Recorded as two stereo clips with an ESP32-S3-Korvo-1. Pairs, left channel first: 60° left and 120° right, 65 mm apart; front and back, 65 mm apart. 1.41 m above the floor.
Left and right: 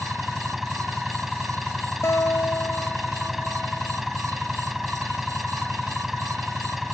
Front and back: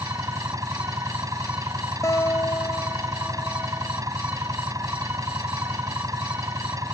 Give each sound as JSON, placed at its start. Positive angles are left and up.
{"t": 0.0, "sound": "an engine running", "azimuth_deg": 155}
{"t": 2.0, "sound": "a guitar", "azimuth_deg": 25}